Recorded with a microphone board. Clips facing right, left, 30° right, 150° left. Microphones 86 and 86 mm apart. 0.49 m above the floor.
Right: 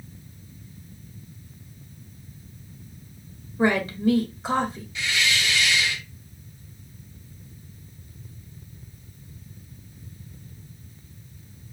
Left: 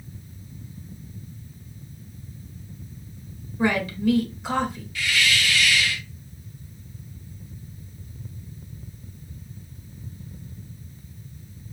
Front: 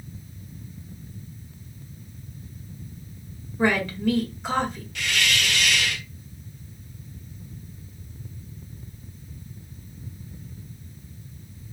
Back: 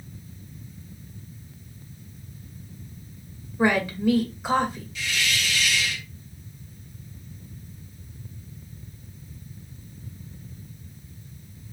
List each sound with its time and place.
3.6 s a woman speaking: 135° right, 1.3 m
5.0 s a hiss: 25° right, 0.5 m